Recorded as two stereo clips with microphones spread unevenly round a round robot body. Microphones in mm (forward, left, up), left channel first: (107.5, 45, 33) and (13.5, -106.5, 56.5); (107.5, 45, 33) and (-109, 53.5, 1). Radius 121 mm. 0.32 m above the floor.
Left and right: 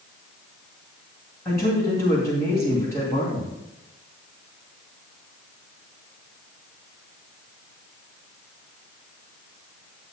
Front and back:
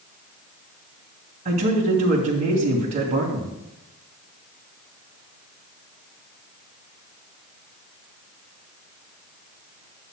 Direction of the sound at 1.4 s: 130° left.